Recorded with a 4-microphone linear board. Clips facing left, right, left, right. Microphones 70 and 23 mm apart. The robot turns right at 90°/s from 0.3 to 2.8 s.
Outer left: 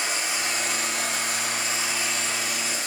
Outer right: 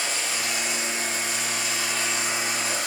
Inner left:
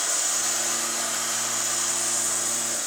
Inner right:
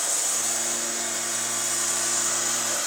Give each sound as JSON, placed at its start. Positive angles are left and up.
{"t": 0.0, "sound": "running water", "azimuth_deg": 15, "distance_m": 3.5}